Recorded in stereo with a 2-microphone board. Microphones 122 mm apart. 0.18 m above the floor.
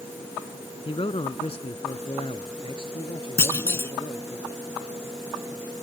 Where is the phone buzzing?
No phone buzzing in this recording.